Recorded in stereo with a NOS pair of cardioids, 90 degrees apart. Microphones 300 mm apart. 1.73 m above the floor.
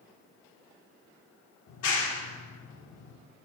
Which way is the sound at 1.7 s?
65° left.